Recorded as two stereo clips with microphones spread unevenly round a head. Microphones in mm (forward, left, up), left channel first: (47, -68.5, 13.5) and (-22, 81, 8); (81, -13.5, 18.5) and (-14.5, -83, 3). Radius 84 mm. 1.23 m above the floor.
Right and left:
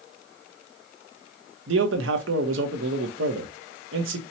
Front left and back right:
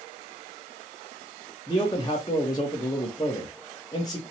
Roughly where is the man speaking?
Left.